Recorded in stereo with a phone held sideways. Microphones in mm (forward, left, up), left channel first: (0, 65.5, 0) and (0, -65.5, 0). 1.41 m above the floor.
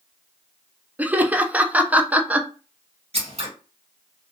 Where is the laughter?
10° right (ahead or behind), 0.6 m.